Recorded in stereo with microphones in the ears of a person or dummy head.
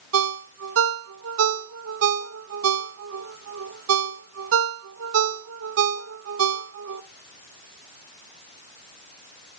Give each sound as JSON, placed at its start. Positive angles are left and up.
{"t": 0.1, "sound": "a ringtone", "side_deg": -70, "distance_m": 0.8}